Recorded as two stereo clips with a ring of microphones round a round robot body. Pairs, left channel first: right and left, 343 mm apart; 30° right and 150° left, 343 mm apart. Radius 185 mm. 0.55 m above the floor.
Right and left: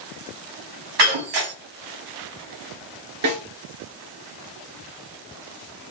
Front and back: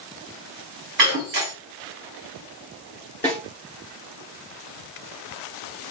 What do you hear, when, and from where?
1.0 s breaking glass: 95° left, 3 m
3.2 s a snare drum: 50° left, 3 m